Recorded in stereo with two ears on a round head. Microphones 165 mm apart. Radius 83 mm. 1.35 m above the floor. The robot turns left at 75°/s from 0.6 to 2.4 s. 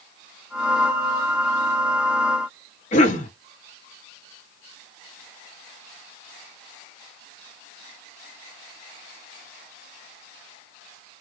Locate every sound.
2.9 s a cough: 40° left (ahead or behind), 1.0 m